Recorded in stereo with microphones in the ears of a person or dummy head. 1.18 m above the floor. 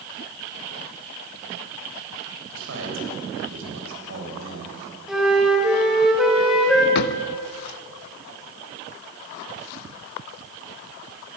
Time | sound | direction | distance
2.5 | a man speaking | 75° right (ahead or behind) | 7 m
5.1 | a flute | 5° right (ahead or behind) | 3.5 m
7.0 | a drawer | 60° left (ahead or behind) | 0.7 m